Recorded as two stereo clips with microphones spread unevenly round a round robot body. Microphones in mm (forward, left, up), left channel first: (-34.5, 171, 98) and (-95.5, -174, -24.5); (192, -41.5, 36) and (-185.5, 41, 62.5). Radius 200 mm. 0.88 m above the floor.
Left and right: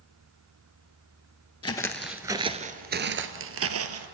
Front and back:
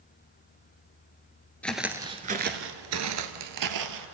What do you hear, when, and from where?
1.6 s footsteps: 80° left, 0.9 m; by 4.1 s 160° right, 1.5 m